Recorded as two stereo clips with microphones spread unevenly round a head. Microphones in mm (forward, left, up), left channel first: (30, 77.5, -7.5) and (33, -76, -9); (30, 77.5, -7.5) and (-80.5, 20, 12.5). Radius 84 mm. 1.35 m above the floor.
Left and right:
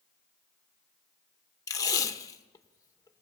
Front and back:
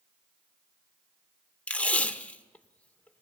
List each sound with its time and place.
1.7 s tape being pulled: 115° left, 1.0 m